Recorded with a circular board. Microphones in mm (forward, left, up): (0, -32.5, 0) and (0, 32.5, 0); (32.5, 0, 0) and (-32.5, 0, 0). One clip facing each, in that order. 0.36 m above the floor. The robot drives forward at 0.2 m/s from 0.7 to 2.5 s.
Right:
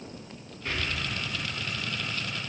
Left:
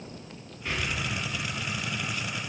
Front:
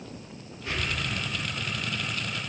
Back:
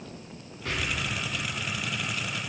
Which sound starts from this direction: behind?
An explosion, at 0.7 s.